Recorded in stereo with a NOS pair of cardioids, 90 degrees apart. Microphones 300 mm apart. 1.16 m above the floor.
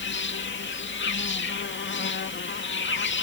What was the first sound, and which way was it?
An insect, 40° left.